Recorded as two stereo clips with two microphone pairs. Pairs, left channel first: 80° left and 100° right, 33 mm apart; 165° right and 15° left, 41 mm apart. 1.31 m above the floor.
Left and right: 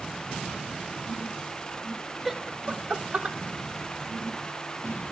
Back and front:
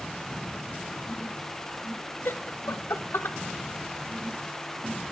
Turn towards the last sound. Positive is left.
turn(degrees=-150)